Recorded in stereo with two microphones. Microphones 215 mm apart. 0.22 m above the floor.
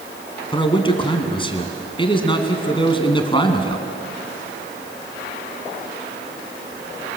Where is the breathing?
No breathing in this recording.